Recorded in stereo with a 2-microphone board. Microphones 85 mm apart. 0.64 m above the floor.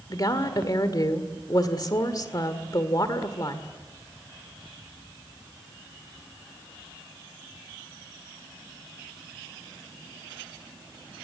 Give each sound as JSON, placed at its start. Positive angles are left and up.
{"t": 0.1, "sound": "a woman speaking", "side_deg": 45, "distance_m": 2.0}